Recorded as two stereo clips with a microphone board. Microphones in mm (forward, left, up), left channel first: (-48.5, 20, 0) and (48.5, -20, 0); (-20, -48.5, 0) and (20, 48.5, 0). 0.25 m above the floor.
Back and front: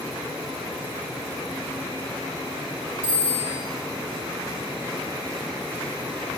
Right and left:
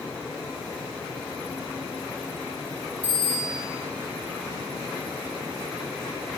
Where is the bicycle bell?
10° right, 5 m.